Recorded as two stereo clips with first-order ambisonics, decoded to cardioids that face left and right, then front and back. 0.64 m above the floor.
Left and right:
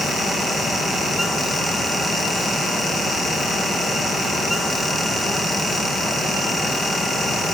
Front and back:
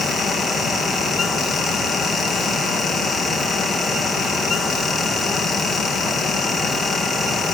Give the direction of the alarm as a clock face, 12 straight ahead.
I don't hear an alarm.